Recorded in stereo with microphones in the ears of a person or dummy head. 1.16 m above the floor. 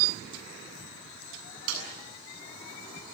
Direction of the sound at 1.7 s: 80° right.